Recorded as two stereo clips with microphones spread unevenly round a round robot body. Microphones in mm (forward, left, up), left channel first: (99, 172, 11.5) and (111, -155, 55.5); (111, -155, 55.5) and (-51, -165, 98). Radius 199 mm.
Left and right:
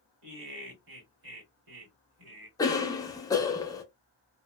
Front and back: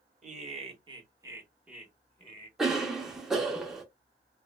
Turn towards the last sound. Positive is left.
turn(degrees=60)